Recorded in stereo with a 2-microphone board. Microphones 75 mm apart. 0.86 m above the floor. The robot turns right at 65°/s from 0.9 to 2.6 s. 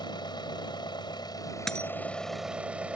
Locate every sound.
0.0 s an engine running: 85° left; by 3.0 s 165° right
1.7 s a dropped coin: 5° left (ahead or behind); by 1.9 s 20° left (ahead or behind)